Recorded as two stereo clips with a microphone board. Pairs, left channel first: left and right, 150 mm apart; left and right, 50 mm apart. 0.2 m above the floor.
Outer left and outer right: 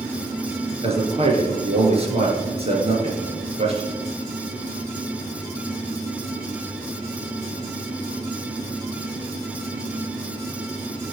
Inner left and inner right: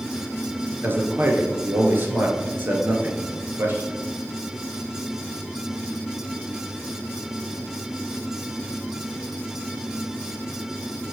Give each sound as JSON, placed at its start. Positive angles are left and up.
{"t": 0.8, "sound": "a man speaking", "side_deg": -45, "distance_m": 2.5}